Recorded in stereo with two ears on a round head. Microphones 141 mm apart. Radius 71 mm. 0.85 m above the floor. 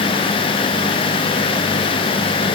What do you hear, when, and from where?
Only background noise.